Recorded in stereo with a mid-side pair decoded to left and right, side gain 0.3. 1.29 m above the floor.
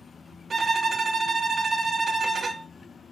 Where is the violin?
60° right, 0.5 m.